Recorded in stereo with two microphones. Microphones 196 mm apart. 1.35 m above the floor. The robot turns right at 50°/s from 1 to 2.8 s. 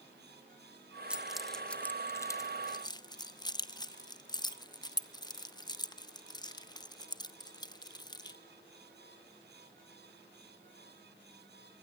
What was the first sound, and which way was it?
Keys jangling, 5° right (ahead or behind).